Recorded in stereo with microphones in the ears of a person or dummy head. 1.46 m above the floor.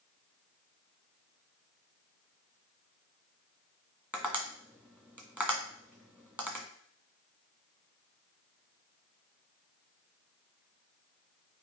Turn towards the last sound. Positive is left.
turn(degrees=-10)  # may be behind; listen again after turning